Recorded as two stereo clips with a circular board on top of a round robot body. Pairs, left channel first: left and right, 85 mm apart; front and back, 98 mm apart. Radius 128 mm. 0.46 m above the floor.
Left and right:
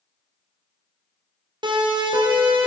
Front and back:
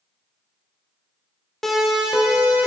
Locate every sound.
1.6 s a siren: 90° right, 2.5 m; by 2.7 s 105° right, 3.5 m